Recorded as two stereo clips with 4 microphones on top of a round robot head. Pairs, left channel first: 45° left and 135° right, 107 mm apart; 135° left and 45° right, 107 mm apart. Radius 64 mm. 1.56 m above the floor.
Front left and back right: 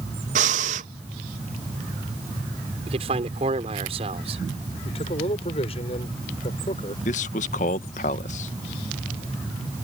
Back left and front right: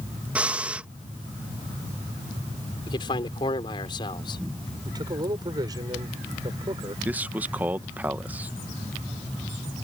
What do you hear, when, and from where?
0.3 s breathing: 125° right
2.9 s a man speaking: 175° right
4.8 s a man speaking: 10° left
7.0 s a man speaking: 30° left